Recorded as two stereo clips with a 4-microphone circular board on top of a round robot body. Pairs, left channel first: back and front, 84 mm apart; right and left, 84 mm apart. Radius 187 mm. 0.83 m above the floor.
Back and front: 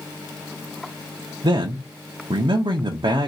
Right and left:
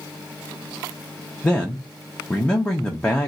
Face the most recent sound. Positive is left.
turn(degrees=-10)